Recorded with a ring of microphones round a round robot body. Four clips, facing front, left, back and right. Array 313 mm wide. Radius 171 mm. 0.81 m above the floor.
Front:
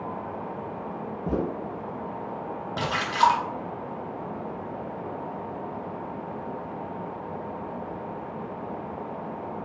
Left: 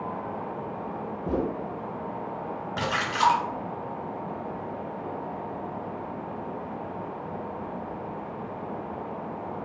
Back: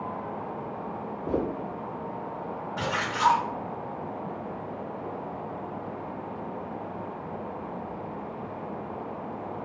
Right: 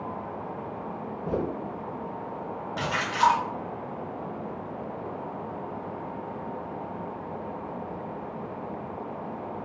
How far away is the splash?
About 0.7 m.